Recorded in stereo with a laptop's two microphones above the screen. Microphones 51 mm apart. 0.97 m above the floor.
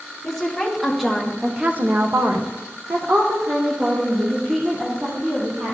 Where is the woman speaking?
10° left (ahead or behind), 1.3 m; by 5.8 s 45° right (ahead or behind), 2.5 m.